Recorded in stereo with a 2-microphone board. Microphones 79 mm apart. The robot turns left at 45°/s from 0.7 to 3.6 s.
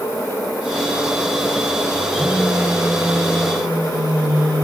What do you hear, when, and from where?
2.1 s a phone buzzing: straight ahead, 9 m; by 4.7 s 65° right, 9 m